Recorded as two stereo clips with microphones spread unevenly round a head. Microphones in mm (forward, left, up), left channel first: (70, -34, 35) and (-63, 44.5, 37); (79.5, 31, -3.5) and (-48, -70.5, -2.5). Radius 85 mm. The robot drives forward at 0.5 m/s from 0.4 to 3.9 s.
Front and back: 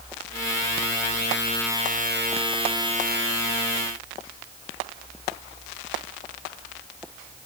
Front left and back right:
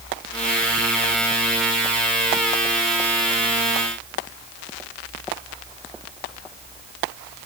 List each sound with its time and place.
Only background noise.